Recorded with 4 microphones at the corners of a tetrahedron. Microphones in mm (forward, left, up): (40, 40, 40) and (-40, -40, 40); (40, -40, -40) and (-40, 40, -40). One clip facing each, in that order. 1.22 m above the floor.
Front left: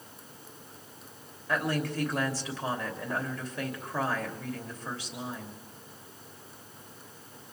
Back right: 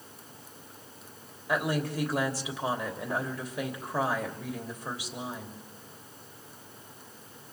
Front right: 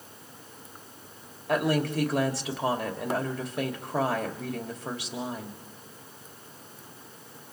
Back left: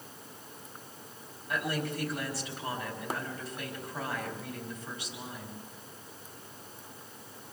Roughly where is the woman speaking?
Ahead right.